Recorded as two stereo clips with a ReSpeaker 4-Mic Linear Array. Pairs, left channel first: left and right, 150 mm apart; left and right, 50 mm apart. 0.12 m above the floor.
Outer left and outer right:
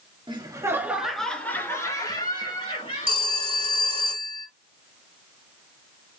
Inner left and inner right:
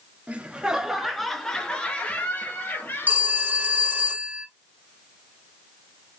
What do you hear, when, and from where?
0.3 s laughter: 30° right (ahead or behind), 1.5 m; by 3.4 s 40° left (ahead or behind), 3 m
3.1 s a phone ringing: 40° right (ahead or behind), 1.5 m